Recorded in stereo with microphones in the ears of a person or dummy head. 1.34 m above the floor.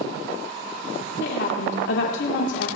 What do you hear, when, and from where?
1.2 s a woman speaking: 70° left (ahead or behind), 1.5 m